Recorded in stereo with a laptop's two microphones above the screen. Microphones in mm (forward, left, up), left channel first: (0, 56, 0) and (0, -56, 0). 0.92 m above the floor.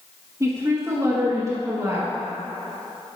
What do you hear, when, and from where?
0.4 s a woman speaking: 30° right (ahead or behind), 1.1 m